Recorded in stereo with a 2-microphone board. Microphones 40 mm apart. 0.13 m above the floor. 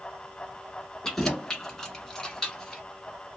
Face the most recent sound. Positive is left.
turn(degrees=15)  # may be behind; listen again after turning